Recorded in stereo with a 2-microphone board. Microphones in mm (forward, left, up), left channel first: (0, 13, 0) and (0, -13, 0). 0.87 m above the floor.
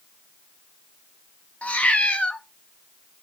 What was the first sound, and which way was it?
A cat meowing, 70° left (ahead or behind).